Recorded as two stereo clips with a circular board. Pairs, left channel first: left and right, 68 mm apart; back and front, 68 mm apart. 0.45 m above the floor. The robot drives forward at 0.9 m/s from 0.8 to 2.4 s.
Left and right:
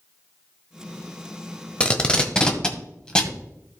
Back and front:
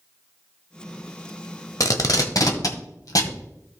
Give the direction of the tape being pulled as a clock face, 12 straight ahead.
7 o'clock.